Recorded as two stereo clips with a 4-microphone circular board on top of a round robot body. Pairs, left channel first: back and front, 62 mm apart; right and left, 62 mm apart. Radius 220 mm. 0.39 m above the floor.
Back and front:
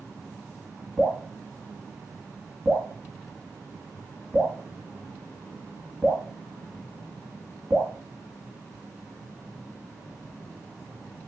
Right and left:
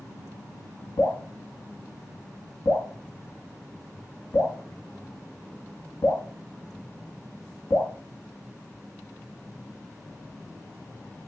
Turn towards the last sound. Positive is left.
turn(degrees=-75)